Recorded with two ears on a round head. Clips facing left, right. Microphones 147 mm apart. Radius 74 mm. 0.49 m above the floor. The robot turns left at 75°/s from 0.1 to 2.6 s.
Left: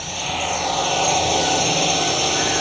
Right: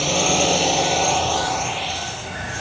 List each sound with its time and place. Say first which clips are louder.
0.0 s a drone: right 7 dB; 105° right; by 2.6 s 65° left